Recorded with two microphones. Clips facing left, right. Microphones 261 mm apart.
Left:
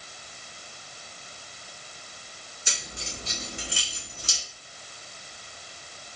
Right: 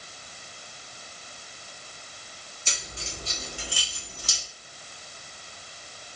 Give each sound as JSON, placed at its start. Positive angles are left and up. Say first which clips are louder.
{"t": 2.7, "sound": "keys jangling", "louder": "even", "side_deg": 10, "distance_m": 1.7}